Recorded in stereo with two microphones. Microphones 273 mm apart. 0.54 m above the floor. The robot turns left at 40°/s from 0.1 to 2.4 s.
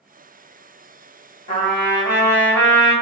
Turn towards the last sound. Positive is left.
turn(degrees=10)